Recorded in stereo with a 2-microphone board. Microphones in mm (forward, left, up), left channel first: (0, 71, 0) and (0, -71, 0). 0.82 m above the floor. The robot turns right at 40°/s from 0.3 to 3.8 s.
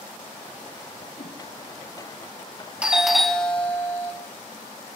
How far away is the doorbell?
About 1.1 m.